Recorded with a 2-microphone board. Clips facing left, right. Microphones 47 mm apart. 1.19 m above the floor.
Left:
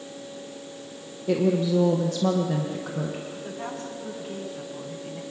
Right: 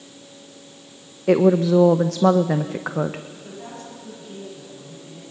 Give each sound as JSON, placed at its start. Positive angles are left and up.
{"t": 1.3, "sound": "a woman speaking", "side_deg": -80, "distance_m": 0.9}
{"t": 3.3, "sound": "a woman speaking", "side_deg": 45, "distance_m": 9.5}